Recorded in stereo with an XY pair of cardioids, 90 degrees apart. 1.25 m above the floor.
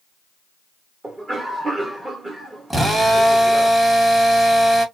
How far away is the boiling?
No boiling in this recording.